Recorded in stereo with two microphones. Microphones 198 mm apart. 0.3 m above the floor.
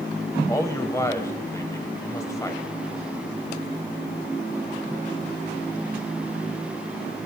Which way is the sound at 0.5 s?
15° left (ahead or behind).